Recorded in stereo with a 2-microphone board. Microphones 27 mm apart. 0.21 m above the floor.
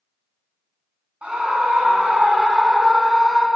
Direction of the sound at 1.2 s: 50° right (ahead or behind).